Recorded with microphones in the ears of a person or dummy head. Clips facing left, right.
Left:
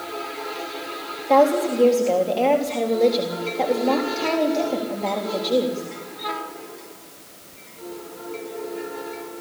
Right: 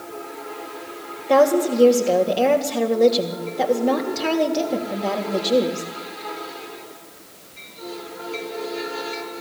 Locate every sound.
1.3 s a woman speaking: 15° right (ahead or behind), 3.5 m